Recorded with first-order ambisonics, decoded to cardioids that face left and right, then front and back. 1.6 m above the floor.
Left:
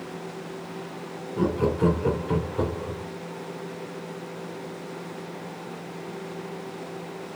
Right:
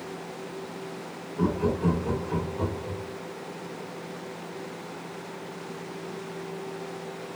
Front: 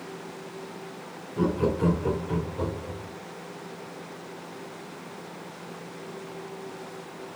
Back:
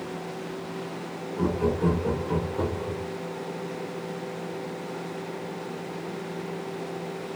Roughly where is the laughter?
Ahead left.